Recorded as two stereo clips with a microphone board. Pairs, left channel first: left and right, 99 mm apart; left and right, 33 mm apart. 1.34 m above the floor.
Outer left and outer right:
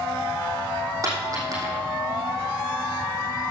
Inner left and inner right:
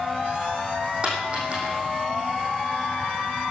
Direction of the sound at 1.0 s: 35° right (ahead or behind).